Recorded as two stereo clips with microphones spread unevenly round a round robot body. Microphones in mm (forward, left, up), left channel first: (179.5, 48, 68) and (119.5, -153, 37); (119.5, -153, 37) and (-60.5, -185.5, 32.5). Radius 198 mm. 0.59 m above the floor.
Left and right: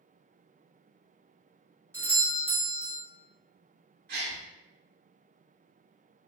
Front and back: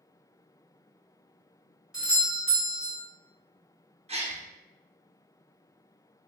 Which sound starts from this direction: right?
A doorbell, at 1.9 s.